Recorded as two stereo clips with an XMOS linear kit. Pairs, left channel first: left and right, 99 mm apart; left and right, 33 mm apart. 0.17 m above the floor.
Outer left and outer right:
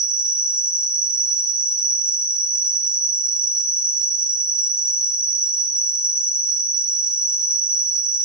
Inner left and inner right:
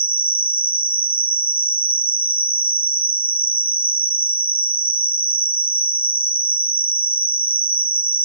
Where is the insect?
40° right (ahead or behind), 1.2 m.